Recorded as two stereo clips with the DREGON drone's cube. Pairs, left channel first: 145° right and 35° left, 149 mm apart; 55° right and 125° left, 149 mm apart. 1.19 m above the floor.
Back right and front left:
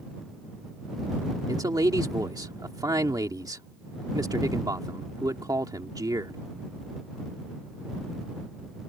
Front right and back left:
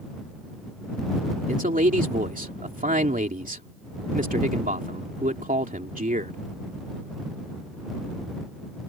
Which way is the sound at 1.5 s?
100° left.